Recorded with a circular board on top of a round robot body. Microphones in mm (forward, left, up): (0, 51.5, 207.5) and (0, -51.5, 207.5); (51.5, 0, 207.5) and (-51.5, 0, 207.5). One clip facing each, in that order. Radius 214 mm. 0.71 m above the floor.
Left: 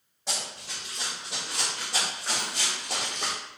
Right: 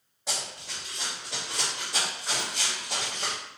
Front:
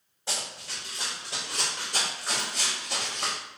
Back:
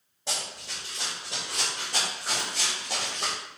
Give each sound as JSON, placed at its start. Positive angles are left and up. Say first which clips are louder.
{"t": 0.3, "sound": "running footsteps", "louder": "even, back 1 dB", "azimuth_deg": -175, "distance_m": 1.7}